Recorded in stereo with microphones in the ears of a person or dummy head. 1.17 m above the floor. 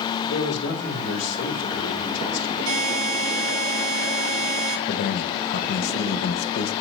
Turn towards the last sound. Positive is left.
turn(degrees=65)  # may be behind; listen again after turning